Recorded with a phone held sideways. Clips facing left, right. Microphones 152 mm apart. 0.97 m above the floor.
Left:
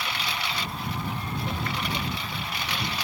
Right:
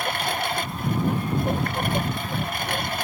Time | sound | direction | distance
0.0 | a lawn mower | 50° right (ahead or behind) | ?